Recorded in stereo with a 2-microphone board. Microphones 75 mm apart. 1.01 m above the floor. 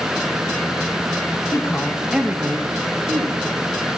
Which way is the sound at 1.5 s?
45° left (ahead or behind).